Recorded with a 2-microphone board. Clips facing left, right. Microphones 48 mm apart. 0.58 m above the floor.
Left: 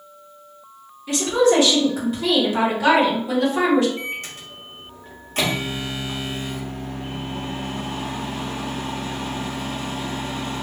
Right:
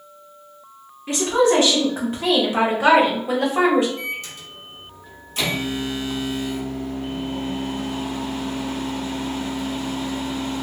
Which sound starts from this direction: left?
A microwave, at 4.0 s.